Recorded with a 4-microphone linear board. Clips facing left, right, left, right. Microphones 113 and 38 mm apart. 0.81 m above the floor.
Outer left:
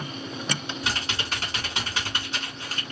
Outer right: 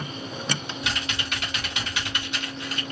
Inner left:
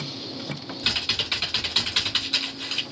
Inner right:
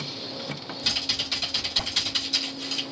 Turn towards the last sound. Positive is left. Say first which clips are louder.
# even, inner left 3 dB
turn(degrees=35)  # may be behind; listen again after turning